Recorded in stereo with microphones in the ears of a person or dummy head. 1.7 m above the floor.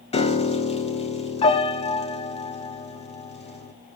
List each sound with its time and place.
0.1 s a piano: 30° left (ahead or behind), 1.3 m